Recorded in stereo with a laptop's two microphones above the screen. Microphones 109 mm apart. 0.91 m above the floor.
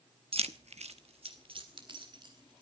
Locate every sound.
0.3 s keys jangling: 60° right (ahead or behind), 0.8 m; by 2.6 s 45° right (ahead or behind), 3 m